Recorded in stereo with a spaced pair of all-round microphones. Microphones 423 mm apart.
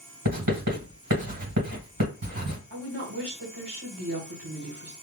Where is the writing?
55° right (ahead or behind), 2 m.